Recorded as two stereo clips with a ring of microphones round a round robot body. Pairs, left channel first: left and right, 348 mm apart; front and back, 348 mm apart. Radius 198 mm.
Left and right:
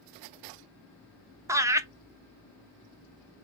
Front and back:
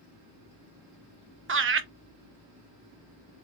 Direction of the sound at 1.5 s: 165° right.